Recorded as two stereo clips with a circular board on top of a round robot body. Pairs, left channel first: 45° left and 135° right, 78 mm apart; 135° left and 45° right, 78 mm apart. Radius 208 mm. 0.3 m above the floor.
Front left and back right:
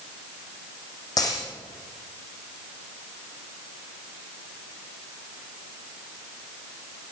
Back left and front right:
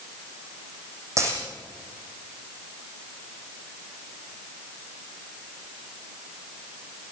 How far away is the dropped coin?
About 7.5 m.